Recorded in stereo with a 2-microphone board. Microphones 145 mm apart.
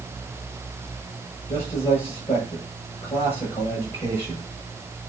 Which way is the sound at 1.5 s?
50° left (ahead or behind).